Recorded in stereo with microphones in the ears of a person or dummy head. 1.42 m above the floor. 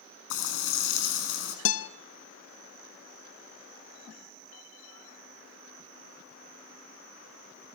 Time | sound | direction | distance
0.3 | frying | 75° left (ahead or behind) | 6.5 m
1.6 | a guitar | 80° left | 0.7 m